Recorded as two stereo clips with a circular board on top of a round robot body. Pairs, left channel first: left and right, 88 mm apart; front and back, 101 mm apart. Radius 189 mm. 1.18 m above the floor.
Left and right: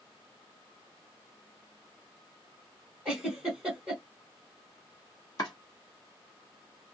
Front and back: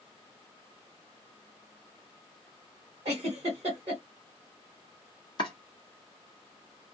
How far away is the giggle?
About 1.0 m.